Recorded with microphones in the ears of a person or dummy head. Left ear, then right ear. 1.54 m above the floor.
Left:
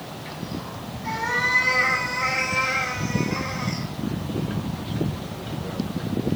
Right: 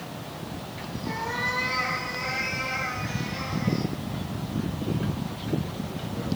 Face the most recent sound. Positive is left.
turn(degrees=65)  # may be behind; listen again after turning